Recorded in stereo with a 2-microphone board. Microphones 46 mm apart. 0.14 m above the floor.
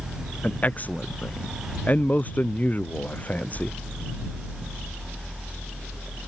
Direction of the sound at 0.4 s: 35° left (ahead or behind).